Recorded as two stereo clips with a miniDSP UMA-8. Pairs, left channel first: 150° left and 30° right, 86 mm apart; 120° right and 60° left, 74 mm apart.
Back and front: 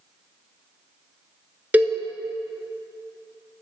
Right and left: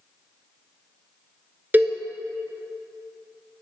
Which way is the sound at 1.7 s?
25° left.